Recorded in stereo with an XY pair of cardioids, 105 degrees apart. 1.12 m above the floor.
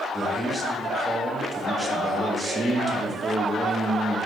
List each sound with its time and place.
0.1 s a man speaking: 20° right, 0.8 m